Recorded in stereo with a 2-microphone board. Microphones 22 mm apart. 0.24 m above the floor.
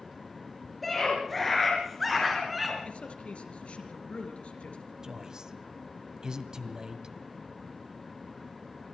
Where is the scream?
5° left (ahead or behind), 4.5 m; by 2.8 s 5° right (ahead or behind), 3 m.